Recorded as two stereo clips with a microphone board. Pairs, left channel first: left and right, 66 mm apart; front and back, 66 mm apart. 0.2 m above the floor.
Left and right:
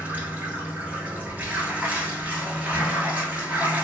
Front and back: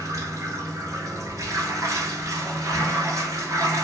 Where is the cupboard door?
No cupboard door in this recording.